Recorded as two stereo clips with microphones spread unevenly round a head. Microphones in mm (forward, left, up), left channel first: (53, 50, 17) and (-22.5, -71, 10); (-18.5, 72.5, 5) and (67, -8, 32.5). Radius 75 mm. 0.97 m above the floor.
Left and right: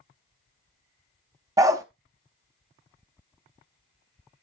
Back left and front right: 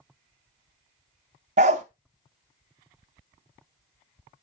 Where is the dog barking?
55° right, 0.8 m.